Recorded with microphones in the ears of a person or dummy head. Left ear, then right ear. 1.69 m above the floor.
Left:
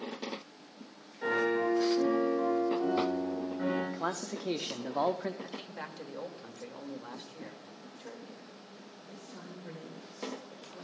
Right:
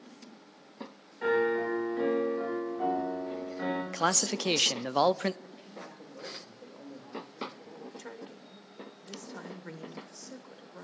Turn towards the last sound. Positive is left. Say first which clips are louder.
# right 2 dB
turn(degrees=-60)  # may be behind; listen again after turning